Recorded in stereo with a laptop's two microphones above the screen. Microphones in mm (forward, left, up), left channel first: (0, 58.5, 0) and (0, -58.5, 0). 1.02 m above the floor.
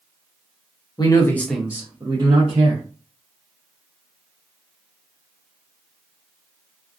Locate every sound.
1.0 s a man speaking: 35° left (ahead or behind), 0.8 m; by 2.8 s 60° right (ahead or behind), 1.2 m